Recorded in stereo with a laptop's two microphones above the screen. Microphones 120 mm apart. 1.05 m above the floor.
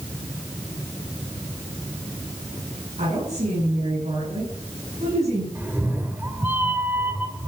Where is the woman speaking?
75° right (ahead or behind), 8.5 m; by 5.5 s 65° right (ahead or behind), 8 m.